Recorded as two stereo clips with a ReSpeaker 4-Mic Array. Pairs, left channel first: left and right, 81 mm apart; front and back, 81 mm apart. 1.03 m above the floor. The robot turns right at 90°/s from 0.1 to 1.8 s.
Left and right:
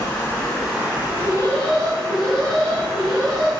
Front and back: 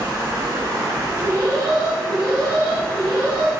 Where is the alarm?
115° left, 1.4 m; by 3.5 s straight behind, 1.4 m.